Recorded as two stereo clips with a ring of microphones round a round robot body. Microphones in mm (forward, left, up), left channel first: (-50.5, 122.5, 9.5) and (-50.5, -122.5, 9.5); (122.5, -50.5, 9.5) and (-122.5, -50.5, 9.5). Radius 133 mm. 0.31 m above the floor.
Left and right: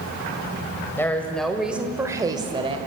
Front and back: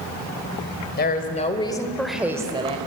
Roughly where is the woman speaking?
Ahead.